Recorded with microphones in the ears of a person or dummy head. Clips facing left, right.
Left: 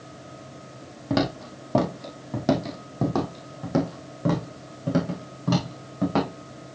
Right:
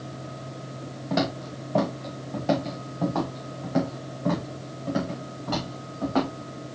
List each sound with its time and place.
1.1 s footsteps: 50° left (ahead or behind), 2 m; by 6.3 s 75° left (ahead or behind), 5 m